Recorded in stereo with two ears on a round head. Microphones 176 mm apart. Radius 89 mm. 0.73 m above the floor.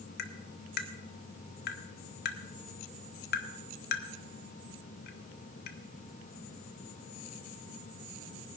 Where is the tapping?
55° left (ahead or behind), 1.0 m.